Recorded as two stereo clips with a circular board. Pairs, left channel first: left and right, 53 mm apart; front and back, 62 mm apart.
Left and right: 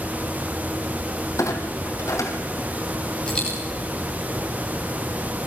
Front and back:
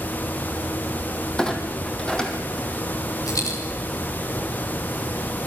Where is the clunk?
75° left, 3 m.